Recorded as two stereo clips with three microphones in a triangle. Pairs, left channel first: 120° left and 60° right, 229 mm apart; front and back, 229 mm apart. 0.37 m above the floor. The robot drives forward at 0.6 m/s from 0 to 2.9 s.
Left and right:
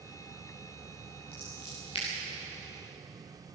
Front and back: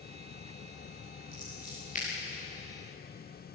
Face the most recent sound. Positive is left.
turn(degrees=60)